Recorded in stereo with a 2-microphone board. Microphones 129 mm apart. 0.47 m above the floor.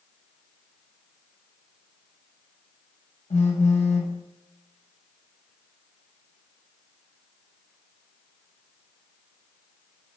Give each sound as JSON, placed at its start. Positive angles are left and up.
{"t": 3.3, "sound": "a phone buzzing", "side_deg": 60, "distance_m": 0.8}